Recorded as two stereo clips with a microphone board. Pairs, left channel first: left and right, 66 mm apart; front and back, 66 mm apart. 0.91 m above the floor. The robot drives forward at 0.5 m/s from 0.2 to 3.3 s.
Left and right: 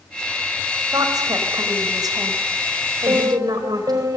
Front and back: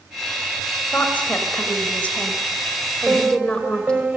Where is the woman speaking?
65° right, 5.5 m; by 4.1 s 75° right, 5 m.